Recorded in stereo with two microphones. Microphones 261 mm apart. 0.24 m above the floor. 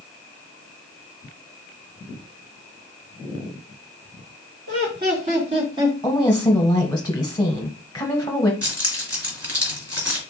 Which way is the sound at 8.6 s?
65° right (ahead or behind).